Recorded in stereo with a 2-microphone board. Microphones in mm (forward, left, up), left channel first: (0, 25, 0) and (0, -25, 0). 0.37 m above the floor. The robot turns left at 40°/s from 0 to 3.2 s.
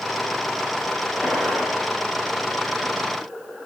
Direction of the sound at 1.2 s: 5° left (ahead or behind).